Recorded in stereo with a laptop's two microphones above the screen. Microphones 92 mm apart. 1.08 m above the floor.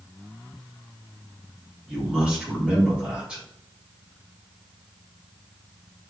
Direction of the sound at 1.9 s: 10° right (ahead or behind).